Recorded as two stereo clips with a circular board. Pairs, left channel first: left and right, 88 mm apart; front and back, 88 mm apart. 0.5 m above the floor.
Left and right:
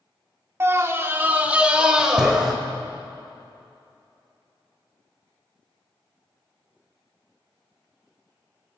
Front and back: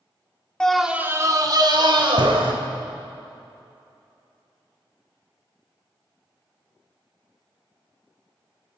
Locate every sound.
0.6 s a scream: 70° right, 1.0 m; by 2.5 s 175° right, 2.5 m